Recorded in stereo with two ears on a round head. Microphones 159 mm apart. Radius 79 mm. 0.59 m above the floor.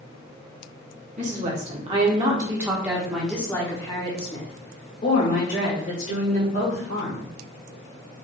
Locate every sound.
1.2 s a woman speaking: 45° right (ahead or behind), 1.6 m; by 7.3 s 65° left (ahead or behind), 2.5 m